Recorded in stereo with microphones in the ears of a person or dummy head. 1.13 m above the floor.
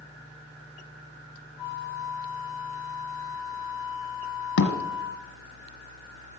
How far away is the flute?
About 1.8 m.